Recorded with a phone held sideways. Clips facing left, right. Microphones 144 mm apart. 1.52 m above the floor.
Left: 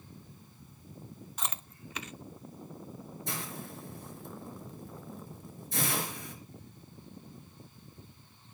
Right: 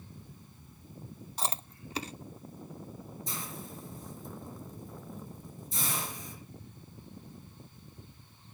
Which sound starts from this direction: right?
Chewing, at 1.4 s.